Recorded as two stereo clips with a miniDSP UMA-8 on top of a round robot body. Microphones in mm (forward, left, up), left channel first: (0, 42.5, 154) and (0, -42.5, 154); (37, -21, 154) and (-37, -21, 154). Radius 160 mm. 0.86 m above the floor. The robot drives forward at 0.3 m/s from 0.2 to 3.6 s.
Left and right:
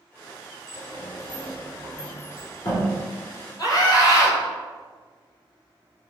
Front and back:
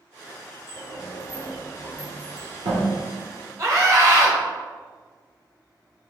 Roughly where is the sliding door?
Behind left.